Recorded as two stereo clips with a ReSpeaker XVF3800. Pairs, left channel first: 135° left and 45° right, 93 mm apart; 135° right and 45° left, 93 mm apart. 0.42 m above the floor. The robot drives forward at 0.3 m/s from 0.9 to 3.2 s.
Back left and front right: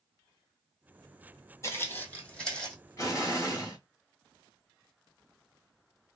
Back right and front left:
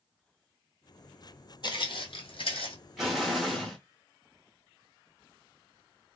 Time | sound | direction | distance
1.6 | footsteps | 170° right | 0.9 m
3.0 | an explosion | 130° left | 0.9 m